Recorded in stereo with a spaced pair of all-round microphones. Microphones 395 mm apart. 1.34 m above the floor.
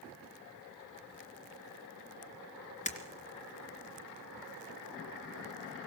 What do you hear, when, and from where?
2.9 s breaking glass: 20° left (ahead or behind), 3 m